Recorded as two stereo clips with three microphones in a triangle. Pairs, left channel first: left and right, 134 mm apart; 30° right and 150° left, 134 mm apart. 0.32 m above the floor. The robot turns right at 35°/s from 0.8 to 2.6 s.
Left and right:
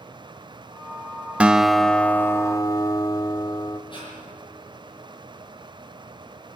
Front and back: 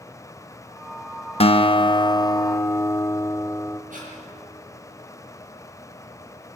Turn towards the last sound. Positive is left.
turn(degrees=140)